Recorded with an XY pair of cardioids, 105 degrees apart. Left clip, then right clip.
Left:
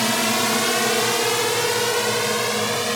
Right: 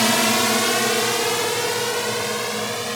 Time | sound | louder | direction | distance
0.0 | a drone | right 2 dB | 15° right | ?